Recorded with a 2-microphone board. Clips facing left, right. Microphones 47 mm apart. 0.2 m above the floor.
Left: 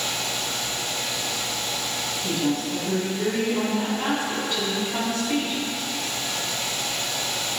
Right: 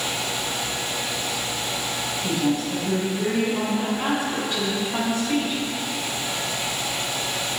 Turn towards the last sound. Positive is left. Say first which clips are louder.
# right 2 dB
turn(degrees=-20)  # may be behind; listen again after turning